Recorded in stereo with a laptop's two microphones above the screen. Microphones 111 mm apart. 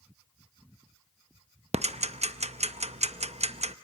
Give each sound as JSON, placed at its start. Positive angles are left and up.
{"t": 1.7, "sound": "ticking", "side_deg": -75, "distance_m": 0.5}